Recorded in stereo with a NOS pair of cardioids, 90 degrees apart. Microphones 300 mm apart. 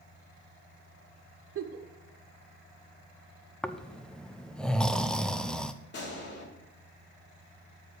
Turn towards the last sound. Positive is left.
turn(degrees=35)